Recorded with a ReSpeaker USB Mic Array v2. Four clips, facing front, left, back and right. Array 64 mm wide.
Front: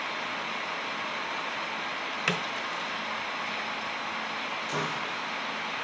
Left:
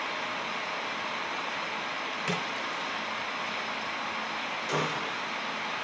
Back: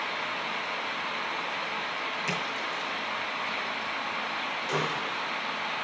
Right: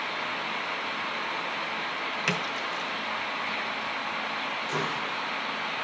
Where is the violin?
No violin in this recording.